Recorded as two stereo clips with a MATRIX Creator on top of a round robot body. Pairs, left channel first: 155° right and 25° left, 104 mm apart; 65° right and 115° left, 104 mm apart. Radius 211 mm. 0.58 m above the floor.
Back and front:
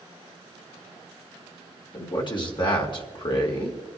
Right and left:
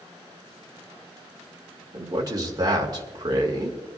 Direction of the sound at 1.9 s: 165° left.